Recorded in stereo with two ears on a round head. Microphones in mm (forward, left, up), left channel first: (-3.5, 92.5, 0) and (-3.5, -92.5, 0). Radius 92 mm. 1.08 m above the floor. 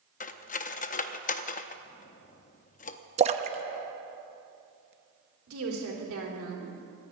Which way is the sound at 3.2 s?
30° right (ahead or behind).